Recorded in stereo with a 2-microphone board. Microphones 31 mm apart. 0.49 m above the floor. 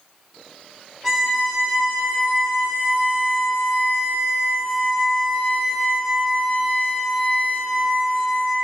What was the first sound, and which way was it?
A violin, centre (ahead or behind).